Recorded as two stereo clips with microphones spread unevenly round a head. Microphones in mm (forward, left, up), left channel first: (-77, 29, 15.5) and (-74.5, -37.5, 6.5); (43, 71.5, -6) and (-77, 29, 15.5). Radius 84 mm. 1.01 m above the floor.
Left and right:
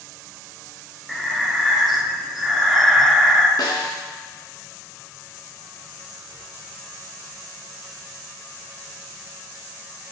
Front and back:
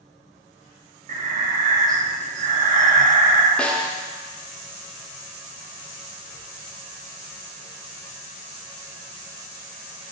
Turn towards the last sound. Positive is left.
turn(degrees=105)